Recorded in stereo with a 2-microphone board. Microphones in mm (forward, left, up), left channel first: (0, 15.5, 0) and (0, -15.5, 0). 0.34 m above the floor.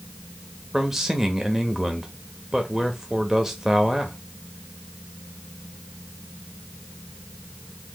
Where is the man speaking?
10° right (ahead or behind), 0.9 m.